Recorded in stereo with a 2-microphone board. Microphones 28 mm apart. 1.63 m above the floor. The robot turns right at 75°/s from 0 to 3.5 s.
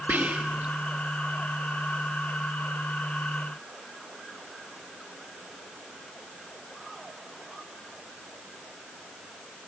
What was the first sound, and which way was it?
Whispering, 75° right (ahead or behind).